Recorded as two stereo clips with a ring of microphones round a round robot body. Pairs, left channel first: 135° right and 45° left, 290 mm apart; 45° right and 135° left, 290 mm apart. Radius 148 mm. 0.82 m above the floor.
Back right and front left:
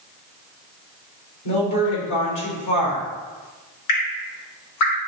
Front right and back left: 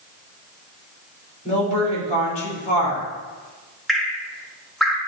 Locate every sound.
1.4 s a woman speaking: 110° right, 3 m
3.9 s dripping: 135° right, 1.0 m